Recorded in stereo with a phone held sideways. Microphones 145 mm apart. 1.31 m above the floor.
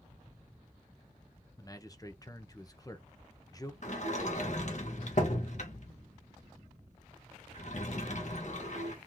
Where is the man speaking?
25° left (ahead or behind), 0.8 m.